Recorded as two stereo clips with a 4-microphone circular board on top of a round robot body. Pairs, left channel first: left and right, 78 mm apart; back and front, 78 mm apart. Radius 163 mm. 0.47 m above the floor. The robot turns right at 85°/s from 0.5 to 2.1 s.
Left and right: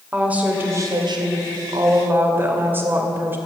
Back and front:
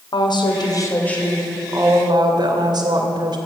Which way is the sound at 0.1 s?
160° right.